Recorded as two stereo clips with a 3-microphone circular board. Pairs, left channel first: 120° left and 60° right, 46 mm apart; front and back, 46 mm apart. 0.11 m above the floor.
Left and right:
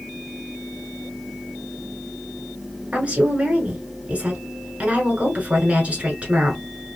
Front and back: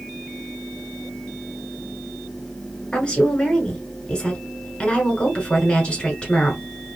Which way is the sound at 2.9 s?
40° right.